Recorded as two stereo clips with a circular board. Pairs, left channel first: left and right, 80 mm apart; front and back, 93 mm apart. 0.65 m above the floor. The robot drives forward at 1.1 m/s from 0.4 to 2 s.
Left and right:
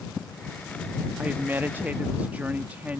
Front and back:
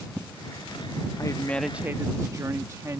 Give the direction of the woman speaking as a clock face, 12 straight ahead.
1 o'clock.